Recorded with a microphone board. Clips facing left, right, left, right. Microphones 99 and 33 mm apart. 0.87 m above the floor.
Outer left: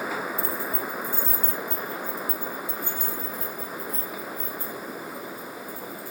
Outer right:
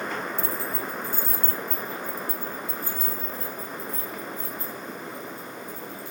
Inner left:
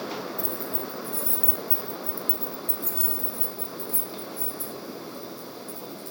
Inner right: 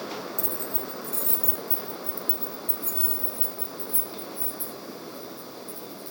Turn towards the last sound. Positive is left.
turn(degrees=-20)  # may be behind; listen again after turning